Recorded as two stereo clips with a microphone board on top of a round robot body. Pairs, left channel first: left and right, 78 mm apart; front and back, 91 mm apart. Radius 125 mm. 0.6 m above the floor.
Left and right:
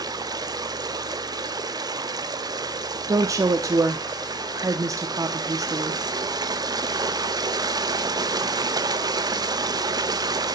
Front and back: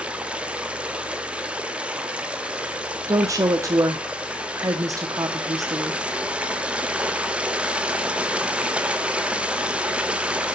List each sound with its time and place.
0.0 s running water: 105° right, 1.5 m
3.1 s a woman speaking: 130° right, 1.1 m